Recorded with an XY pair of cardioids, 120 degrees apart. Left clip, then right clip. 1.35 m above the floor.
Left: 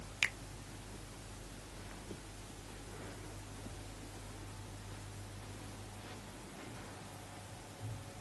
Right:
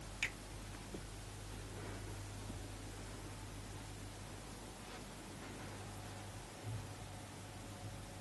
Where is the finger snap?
50° left, 0.7 m.